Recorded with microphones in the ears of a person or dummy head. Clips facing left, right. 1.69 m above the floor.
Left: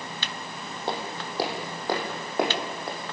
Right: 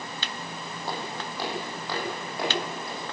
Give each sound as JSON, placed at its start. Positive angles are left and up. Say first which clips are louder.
{"t": 0.9, "sound": "footsteps", "louder": "left 3 dB", "side_deg": 25, "distance_m": 4.0}